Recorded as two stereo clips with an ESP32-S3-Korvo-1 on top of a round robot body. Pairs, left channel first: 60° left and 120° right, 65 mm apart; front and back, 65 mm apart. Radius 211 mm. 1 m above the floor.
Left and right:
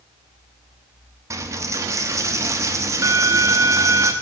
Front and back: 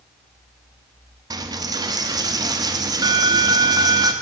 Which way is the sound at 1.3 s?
160° right.